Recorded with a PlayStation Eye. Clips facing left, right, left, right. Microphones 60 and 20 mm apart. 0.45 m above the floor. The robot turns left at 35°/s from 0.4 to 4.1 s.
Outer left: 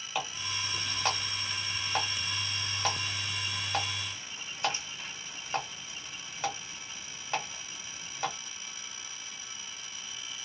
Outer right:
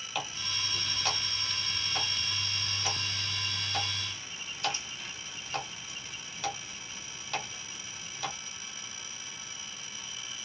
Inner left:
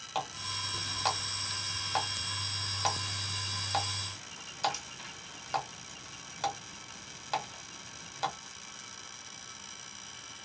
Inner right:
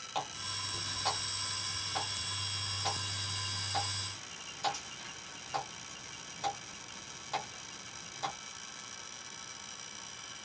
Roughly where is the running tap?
Centre.